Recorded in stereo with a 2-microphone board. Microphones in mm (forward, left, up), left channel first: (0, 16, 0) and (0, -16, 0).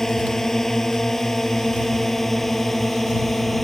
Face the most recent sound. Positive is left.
turn(degrees=5)  # may be behind; listen again after turning